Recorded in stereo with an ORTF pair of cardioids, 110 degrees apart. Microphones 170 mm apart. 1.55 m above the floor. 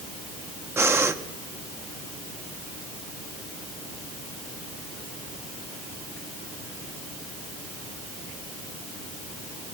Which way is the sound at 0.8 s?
15° right.